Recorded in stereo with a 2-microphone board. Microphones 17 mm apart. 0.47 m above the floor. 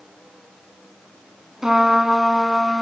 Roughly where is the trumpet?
Right.